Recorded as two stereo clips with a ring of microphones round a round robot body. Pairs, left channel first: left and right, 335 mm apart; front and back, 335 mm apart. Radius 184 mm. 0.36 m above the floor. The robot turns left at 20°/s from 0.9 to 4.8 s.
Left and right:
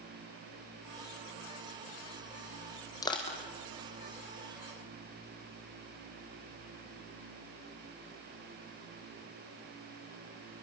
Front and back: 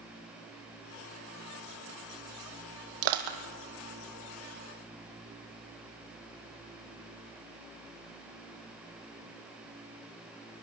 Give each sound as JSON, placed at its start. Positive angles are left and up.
{"t": 3.0, "sound": "crushing", "azimuth_deg": 170, "distance_m": 2.5}